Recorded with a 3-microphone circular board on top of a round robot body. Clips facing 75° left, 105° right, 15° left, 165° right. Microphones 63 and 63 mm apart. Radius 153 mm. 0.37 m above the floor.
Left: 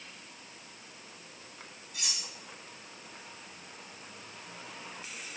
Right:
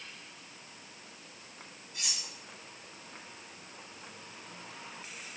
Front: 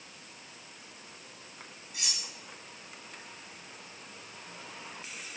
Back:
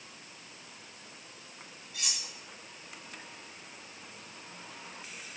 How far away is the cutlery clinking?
About 5.5 m.